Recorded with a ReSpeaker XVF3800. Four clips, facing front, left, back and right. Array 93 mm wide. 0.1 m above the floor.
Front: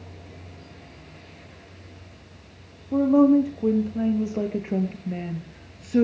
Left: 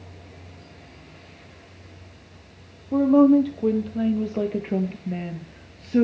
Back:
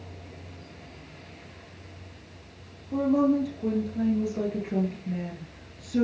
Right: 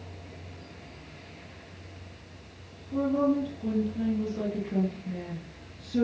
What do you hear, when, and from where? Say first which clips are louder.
2.9 s a woman speaking: left 10 dB, front 6 dB; 65° left, 3.5 m; by 6.0 s 55° left, 2 m